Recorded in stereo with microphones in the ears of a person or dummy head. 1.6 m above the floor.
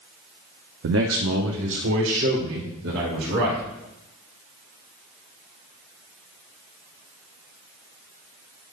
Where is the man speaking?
65° right (ahead or behind), 0.6 m; by 3.6 s 60° right (ahead or behind), 3.5 m.